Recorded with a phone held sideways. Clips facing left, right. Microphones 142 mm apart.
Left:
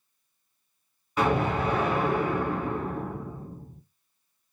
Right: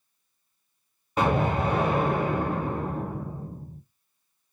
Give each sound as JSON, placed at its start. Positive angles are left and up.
{"t": 1.2, "sound": "an explosion", "side_deg": -35, "distance_m": 1.2}